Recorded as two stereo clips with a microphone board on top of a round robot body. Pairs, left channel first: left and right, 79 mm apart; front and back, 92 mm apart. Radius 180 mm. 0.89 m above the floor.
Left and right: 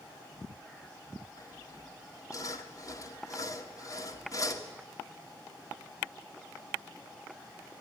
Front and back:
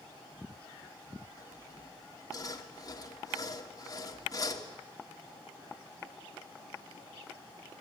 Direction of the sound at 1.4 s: 50° left.